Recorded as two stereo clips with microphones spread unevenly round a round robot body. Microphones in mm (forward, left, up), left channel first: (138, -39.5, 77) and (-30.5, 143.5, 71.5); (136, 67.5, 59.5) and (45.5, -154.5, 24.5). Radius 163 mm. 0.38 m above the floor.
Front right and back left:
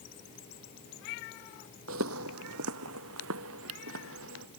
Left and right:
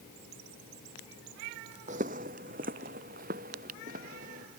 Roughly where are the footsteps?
Behind.